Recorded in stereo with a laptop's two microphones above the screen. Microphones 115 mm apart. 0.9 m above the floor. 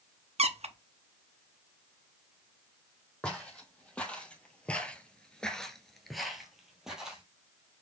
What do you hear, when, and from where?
0.4 s a squeak: 65° right (ahead or behind), 0.6 m
3.2 s footsteps: 10° left (ahead or behind), 2 m; by 7.2 s 5° right (ahead or behind), 1.8 m